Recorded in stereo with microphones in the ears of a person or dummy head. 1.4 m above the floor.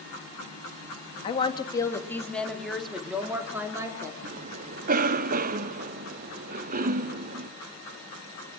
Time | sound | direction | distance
1.2 | a woman speaking | 35° left (ahead or behind) | 3 m
4.2 | a cough | 45° right (ahead or behind) | 0.8 m